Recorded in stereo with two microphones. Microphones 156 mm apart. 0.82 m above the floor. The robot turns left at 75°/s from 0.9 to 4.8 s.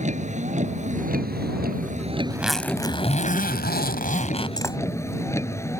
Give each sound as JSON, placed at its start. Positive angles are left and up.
{"t": 0.0, "sound": "a vehicle", "azimuth_deg": -50}
{"t": 2.3, "sound": "a zipper", "azimuth_deg": -165}